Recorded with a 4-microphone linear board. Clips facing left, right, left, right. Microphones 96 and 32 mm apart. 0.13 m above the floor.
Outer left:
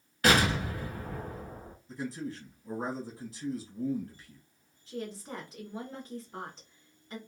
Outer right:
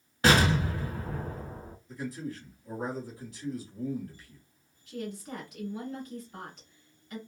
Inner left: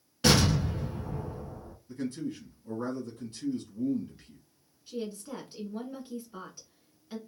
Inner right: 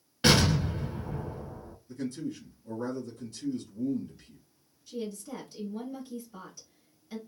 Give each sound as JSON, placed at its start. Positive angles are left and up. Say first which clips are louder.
{"t": 0.2, "sound": "an explosion", "louder": "outer right 2 dB, inner right 1 dB", "side_deg": -25, "distance_m": 1.2}
{"t": 1.9, "sound": "a man speaking", "louder": "even, even", "side_deg": 30, "distance_m": 1.5}
{"t": 4.9, "sound": "a woman speaking", "louder": "outer right 1 dB, even", "side_deg": 30, "distance_m": 1.3}